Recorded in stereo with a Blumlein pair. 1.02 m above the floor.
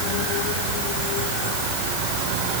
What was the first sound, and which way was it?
Only background noise.